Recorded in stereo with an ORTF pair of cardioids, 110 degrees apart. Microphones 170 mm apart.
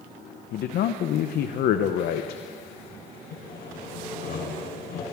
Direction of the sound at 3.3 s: 65° left.